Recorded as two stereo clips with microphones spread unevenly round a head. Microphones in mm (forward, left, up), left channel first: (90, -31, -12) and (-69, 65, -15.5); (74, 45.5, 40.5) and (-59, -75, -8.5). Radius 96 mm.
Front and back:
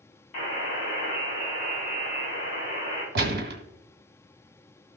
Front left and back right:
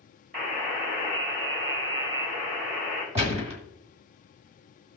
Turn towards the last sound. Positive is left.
turn(degrees=155)